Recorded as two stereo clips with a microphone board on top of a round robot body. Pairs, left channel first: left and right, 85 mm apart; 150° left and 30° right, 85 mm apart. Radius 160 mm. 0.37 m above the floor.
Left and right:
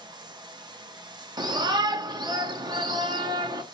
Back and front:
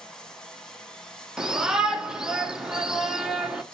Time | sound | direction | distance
0.0 | running water | 125° right | 1.4 m
1.4 | a shout | 110° right | 1.6 m